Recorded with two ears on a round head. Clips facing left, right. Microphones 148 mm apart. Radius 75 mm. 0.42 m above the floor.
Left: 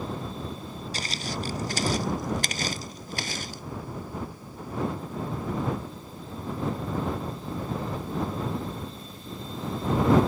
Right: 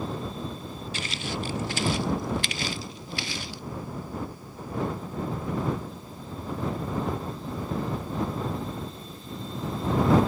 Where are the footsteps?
35° left (ahead or behind); by 3.6 s 40° left (ahead or behind).